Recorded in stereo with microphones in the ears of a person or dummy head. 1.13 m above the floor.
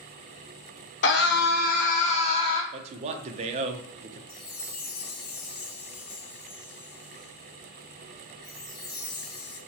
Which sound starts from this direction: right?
A man speaking, at 2.7 s.